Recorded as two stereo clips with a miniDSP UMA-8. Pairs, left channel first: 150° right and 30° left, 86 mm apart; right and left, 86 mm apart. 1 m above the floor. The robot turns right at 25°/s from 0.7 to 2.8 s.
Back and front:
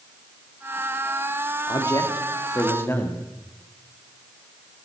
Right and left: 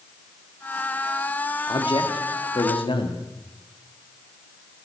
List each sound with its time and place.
1.7 s a man speaking: 115° right, 1.7 m; by 3.2 s 90° right, 1.7 m